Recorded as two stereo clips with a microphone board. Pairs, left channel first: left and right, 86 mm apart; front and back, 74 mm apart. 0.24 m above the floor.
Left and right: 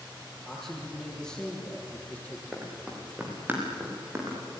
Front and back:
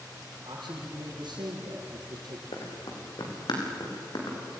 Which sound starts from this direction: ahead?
Running footsteps, at 2.5 s.